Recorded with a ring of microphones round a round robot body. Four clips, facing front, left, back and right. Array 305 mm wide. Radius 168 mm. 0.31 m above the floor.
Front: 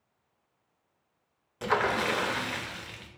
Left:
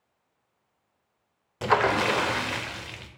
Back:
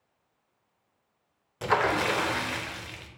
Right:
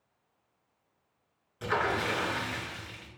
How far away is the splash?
About 0.6 m.